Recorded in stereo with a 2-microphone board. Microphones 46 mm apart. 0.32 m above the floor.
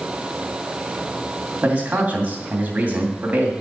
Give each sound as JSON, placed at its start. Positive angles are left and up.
{"t": 1.6, "sound": "a man speaking", "side_deg": -30, "distance_m": 2.5}